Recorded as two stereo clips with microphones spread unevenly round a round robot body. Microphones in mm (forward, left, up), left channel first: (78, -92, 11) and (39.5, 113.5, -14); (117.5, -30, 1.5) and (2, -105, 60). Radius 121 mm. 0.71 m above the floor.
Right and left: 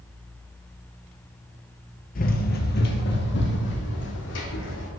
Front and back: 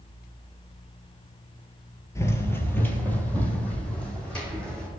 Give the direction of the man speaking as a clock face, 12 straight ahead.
No man speaking in this recording.